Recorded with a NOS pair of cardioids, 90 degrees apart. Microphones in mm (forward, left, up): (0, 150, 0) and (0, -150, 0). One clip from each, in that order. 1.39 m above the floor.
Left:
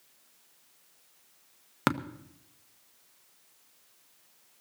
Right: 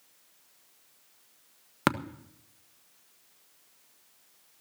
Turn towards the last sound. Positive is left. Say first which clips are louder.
# right 1 dB
turn(degrees=-5)